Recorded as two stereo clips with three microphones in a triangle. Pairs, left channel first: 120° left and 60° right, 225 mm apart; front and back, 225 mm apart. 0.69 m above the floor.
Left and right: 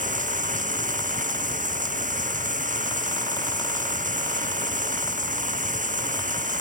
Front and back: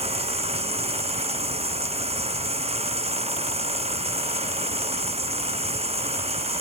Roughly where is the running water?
Behind right.